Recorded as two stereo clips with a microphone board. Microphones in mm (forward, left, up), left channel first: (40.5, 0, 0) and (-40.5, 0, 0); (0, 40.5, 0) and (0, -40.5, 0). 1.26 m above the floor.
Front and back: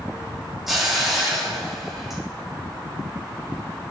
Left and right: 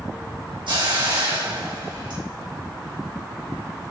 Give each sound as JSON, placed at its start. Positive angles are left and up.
{"t": 0.7, "sound": "a hiss", "azimuth_deg": -95, "distance_m": 3.0}